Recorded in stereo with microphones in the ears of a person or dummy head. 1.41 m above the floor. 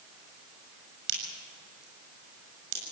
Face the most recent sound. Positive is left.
turn(degrees=-65)  # may be behind; listen again after turning